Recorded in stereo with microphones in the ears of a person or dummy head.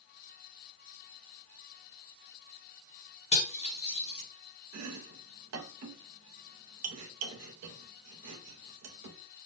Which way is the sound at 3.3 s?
40° left (ahead or behind).